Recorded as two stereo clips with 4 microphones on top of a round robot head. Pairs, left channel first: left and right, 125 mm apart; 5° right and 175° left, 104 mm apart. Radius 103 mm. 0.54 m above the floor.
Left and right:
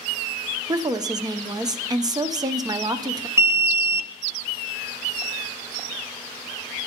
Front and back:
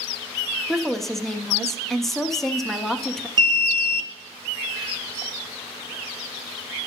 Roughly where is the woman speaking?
Right.